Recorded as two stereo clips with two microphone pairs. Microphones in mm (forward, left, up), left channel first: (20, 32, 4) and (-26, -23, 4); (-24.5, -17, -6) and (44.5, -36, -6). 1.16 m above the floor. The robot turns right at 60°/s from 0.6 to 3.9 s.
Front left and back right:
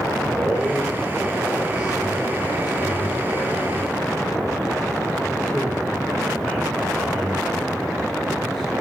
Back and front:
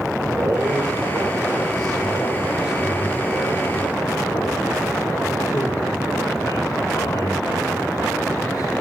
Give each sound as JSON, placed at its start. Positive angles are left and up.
{"t": 0.3, "sound": "a man speaking", "azimuth_deg": -55, "distance_m": 6.0}